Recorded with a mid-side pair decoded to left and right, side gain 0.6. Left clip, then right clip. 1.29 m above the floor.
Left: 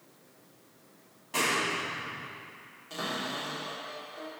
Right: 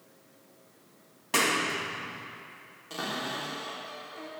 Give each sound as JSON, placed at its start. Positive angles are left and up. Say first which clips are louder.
{"t": 1.3, "sound": "a clap", "louder": "right 2 dB", "azimuth_deg": -60, "distance_m": 1.9}
{"t": 2.9, "sound": "a cupboard door", "louder": "right 1 dB", "azimuth_deg": -25, "distance_m": 3.0}